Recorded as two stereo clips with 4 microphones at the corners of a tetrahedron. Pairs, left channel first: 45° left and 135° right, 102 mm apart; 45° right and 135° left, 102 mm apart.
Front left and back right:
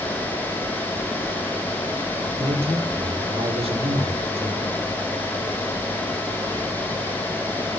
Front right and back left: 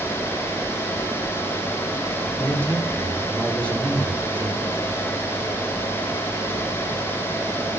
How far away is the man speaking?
About 4 m.